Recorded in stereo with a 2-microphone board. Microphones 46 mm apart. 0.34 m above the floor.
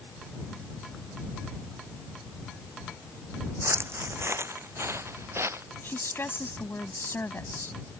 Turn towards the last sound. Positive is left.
turn(degrees=60)  # may be behind; listen again after turning